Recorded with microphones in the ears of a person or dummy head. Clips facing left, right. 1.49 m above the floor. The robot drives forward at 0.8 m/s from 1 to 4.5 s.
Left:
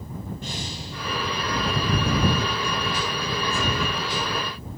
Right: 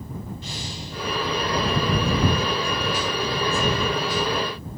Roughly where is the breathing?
Left.